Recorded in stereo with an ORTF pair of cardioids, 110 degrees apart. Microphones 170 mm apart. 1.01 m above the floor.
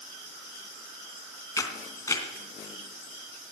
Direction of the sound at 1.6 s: 20° left.